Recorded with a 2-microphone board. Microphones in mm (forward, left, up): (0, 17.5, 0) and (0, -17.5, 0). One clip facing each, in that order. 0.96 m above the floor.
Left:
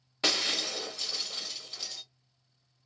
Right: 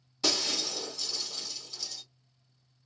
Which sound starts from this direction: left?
Breaking glass, at 0.2 s.